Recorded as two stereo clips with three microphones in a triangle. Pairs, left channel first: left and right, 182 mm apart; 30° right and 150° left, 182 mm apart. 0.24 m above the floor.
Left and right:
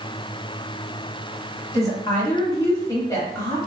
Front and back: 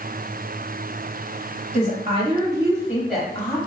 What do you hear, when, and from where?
1.7 s a woman speaking: 155° left, 1.5 m; by 3.6 s 30° left, 1.2 m